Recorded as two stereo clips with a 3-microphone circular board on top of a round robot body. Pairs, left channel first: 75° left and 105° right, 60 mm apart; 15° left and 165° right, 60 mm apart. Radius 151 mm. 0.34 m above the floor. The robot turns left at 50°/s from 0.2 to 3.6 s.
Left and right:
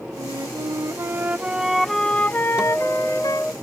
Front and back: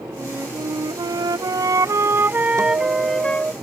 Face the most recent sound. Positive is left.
turn(degrees=135)